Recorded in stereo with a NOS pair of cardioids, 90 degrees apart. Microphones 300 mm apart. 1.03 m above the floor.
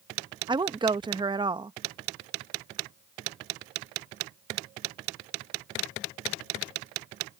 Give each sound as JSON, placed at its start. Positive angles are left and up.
{"t": 0.5, "sound": "a woman speaking", "azimuth_deg": -15}